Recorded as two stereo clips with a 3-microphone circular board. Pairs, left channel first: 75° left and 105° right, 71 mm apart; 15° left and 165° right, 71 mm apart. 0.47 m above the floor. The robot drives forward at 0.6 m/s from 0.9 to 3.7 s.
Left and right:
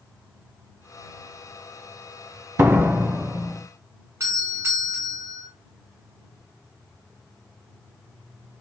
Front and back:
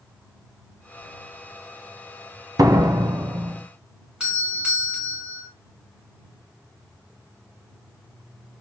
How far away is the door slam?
About 0.6 m.